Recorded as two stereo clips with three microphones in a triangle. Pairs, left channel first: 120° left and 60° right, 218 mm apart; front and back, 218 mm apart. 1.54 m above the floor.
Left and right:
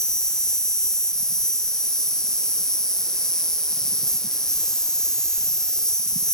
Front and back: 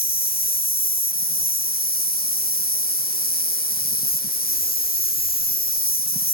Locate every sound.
0.0 s an insect: 35° left, 1.2 m